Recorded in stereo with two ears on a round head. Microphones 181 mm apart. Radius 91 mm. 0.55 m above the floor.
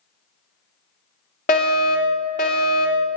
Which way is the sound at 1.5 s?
40° left (ahead or behind).